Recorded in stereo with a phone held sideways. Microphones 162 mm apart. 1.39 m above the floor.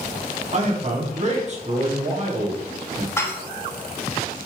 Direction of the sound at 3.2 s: 15° left (ahead or behind).